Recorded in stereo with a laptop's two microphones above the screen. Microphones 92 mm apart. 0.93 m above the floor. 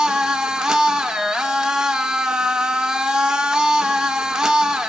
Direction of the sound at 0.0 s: 10° right (ahead or behind).